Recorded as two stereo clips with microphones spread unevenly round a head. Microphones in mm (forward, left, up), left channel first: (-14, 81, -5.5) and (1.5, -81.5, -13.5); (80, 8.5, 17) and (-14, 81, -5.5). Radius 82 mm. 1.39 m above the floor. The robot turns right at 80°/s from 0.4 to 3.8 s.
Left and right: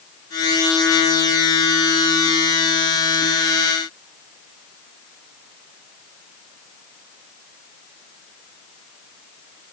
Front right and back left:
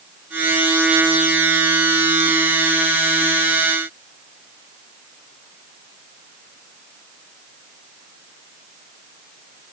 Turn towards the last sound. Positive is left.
No sound to turn to.